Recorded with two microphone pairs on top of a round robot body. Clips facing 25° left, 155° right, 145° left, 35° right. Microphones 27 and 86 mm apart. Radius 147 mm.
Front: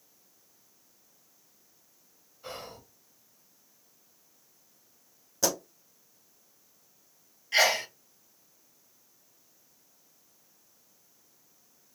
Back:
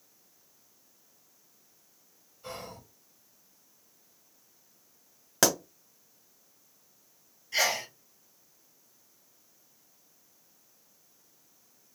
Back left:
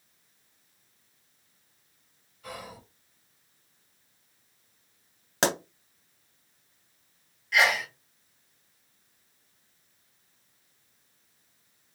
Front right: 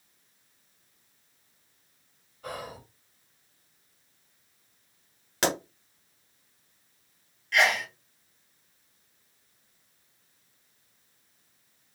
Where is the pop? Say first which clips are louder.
Back 4 dB, back left 1 dB; 155° right, 1.0 m.